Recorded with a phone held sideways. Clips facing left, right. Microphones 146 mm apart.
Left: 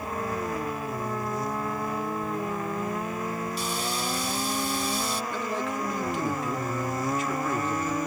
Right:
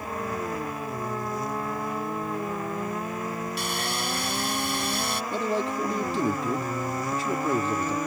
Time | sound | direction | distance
3.6 | sawing | 85° right | ?
5.3 | a man speaking | 35° right (ahead or behind) | ?